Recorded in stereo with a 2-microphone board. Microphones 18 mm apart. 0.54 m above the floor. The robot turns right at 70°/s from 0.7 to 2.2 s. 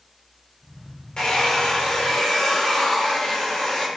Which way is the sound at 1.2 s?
60° left.